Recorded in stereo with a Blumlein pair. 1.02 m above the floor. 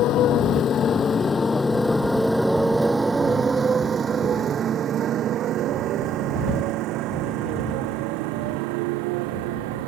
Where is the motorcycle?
35° left; by 9.9 s 50° right.